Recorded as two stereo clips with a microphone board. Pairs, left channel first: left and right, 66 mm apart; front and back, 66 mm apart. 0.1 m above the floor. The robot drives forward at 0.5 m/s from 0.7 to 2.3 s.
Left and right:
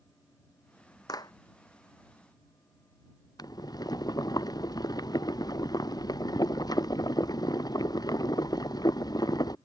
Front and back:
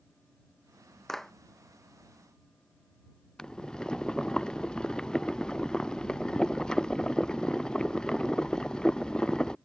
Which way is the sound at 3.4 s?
80° left.